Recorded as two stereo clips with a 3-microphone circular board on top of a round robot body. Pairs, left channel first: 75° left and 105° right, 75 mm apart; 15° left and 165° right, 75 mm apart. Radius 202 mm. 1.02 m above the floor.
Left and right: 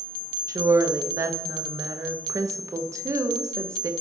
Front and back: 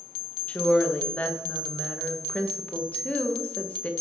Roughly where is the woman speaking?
Ahead right.